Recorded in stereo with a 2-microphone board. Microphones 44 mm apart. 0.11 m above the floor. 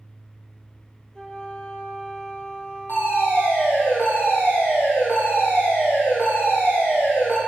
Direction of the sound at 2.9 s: 60° left (ahead or behind).